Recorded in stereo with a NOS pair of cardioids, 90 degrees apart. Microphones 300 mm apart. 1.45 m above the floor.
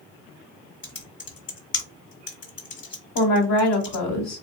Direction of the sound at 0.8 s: 40° left.